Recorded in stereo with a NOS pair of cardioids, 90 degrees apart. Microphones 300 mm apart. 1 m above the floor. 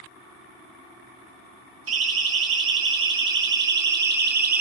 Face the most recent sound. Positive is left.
turn(degrees=-30)